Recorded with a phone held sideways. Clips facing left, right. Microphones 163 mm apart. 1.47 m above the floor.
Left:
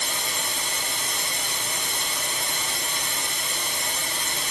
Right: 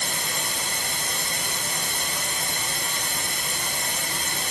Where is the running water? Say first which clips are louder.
Even; 50° right (ahead or behind), 3 m.